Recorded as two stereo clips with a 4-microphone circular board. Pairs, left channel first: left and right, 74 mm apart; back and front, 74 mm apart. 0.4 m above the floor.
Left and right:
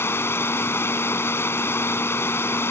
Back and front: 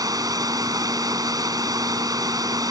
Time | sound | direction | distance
0.0 | running water | 30° left | ?